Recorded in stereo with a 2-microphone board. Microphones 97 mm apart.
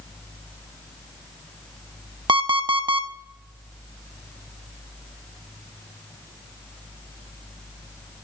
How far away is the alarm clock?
About 0.6 m.